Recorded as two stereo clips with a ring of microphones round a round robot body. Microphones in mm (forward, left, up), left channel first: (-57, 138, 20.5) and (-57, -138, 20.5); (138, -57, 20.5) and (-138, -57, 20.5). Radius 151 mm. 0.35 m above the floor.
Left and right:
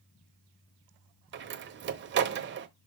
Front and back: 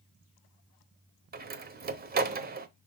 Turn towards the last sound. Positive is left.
turn(degrees=-130)